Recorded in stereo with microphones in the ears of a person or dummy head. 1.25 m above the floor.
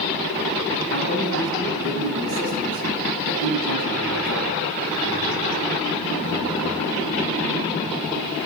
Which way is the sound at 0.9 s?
70° right (ahead or behind).